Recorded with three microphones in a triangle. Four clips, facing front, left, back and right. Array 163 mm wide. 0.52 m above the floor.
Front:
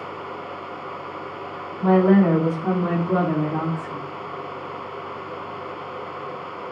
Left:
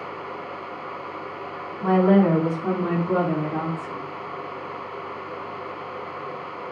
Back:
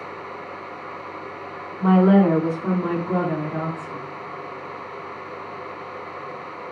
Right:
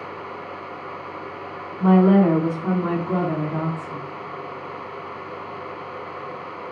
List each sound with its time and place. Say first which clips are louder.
1.8 s a woman speaking: right 2 dB, even; 150° right, 1.1 m; by 4.0 s 30° left, 1.4 m